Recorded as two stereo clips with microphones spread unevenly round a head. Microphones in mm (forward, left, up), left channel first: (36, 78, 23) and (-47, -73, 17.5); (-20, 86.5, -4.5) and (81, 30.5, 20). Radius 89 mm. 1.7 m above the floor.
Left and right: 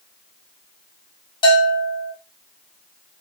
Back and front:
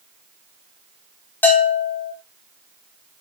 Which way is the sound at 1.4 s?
70° left.